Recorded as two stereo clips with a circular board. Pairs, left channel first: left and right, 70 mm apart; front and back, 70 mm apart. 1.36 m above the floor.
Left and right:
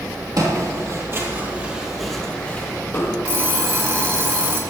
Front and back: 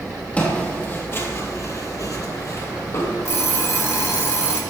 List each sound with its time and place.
0.4 s footsteps: 70° right, 3 m; by 3.1 s 40° left, 3 m
3.2 s an alarm clock: 40° right, 2 m